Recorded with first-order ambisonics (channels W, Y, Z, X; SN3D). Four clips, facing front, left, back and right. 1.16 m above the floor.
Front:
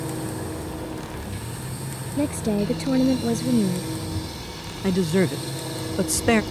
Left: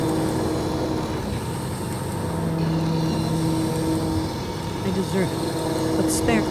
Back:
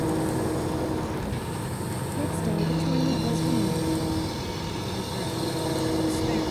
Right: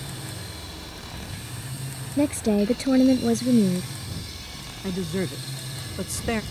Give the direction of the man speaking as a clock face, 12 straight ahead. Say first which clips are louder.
Left 4 dB, front 9 dB; 11 o'clock.